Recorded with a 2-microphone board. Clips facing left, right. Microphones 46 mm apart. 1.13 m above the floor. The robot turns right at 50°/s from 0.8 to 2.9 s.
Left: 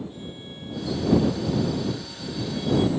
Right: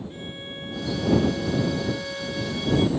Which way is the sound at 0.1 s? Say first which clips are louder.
Right 2 dB; 140° right.